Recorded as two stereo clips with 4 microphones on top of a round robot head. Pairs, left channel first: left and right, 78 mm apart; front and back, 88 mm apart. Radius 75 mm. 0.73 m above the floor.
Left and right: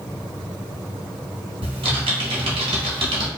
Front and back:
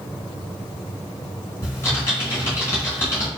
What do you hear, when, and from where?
1.6 s typing on a keyboard: 70° right, 1.0 m